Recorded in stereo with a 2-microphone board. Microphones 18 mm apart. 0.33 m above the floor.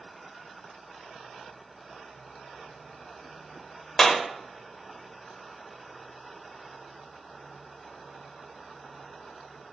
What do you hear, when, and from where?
4.0 s a clap: 25° left (ahead or behind), 1.2 m